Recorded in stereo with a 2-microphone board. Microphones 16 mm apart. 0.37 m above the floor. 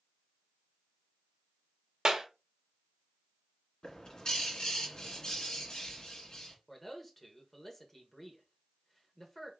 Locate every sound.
2.0 s a clap: 50° right (ahead or behind), 1.0 m
3.8 s a bird: 55° left (ahead or behind), 1.9 m
6.7 s a man speaking: 20° left (ahead or behind), 1.3 m